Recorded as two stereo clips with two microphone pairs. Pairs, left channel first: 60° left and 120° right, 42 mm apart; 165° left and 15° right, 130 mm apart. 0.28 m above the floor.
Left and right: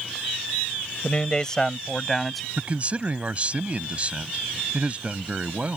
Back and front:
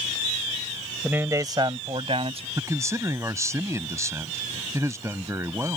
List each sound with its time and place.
1.0 s a man speaking: 50° left; by 2.5 s 30° right
2.6 s a man speaking: 75° right